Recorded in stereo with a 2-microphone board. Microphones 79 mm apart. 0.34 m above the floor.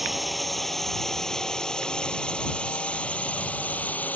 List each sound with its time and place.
0.0 s a drone: centre (ahead or behind); by 4.2 s 20° left (ahead or behind)